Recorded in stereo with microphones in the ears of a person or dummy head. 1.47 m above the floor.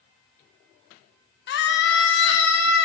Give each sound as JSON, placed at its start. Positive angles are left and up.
{"t": 1.5, "sound": "a scream", "side_deg": 65, "distance_m": 1.4}